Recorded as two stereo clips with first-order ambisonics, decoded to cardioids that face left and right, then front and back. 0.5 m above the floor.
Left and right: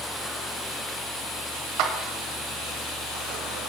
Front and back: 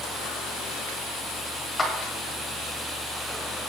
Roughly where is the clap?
Right.